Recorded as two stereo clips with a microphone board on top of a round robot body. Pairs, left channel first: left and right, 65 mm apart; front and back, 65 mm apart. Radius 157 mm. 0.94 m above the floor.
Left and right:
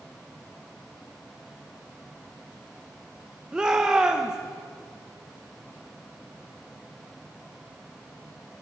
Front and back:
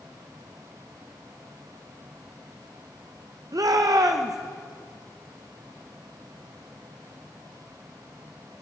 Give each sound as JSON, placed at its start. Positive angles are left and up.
{"t": 3.5, "sound": "a shout", "azimuth_deg": -165, "distance_m": 1.1}